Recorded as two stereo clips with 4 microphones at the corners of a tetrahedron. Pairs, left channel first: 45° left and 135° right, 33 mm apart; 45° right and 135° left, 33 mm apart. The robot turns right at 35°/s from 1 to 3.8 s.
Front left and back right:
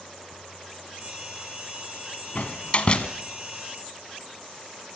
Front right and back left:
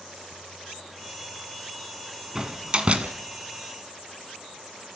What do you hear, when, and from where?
2.4 s a door slam: 75° left, 1.6 m; by 3.1 s 100° left, 1.6 m